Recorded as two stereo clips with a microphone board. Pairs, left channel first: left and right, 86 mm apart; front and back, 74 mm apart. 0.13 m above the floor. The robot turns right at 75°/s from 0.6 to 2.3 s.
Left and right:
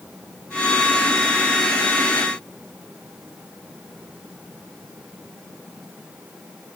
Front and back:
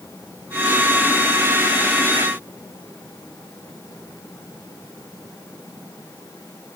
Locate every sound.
Only background noise.